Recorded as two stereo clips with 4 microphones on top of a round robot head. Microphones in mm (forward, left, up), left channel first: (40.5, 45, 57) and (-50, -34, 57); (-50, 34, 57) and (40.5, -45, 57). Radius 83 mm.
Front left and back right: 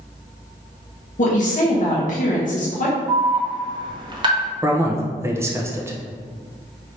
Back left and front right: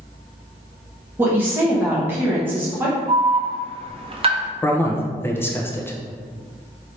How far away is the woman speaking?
About 0.9 m.